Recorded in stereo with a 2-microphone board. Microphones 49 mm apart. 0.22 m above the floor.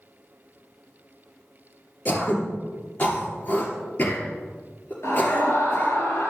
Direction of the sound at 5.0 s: 65° left (ahead or behind).